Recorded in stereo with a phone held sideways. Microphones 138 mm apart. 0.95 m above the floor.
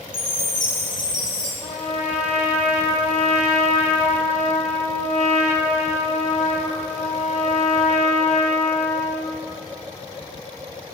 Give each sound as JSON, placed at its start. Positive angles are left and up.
{"t": 0.1, "sound": "a chime", "side_deg": -30, "distance_m": 5.0}
{"t": 1.6, "sound": "a trumpet", "side_deg": 55, "distance_m": 2.0}